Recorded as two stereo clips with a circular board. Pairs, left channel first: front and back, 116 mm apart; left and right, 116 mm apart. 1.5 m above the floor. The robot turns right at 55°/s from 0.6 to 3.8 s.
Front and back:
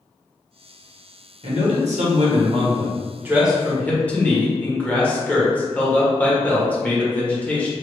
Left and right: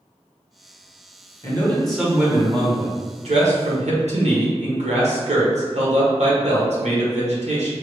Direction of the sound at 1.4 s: 150° left.